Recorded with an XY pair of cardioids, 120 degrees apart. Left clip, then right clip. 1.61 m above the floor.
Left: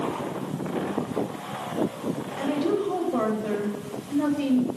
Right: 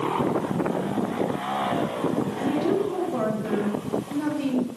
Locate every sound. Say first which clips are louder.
2.4 s a woman speaking: left 1 dB; 35° left, 9 m